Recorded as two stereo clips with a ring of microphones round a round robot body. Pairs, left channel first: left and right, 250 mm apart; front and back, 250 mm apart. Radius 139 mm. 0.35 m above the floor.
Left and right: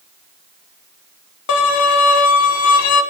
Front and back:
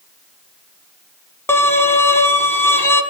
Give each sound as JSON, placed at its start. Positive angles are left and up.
{"t": 1.5, "sound": "a violin", "azimuth_deg": 80, "distance_m": 1.7}